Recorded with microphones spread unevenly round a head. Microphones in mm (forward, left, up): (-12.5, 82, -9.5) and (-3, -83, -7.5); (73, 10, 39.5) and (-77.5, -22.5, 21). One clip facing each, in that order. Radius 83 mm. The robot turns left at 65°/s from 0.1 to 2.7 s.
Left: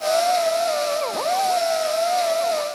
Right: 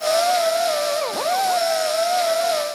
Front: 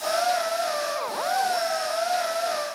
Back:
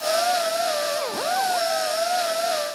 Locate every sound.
Only background noise.